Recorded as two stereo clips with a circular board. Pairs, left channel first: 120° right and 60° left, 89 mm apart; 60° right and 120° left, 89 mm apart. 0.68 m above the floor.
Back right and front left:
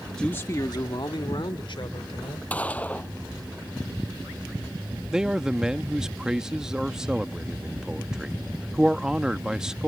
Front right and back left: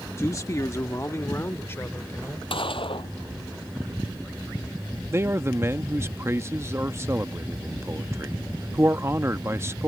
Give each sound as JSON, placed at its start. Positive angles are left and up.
{"t": 0.2, "sound": "a man speaking", "azimuth_deg": -45}
{"t": 2.5, "sound": "a gunshot", "azimuth_deg": -45}
{"t": 5.1, "sound": "a man speaking", "azimuth_deg": 135}